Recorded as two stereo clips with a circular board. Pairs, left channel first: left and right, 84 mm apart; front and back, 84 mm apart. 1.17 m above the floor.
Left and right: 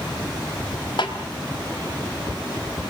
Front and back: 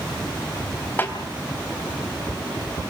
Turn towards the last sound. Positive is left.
turn(degrees=65)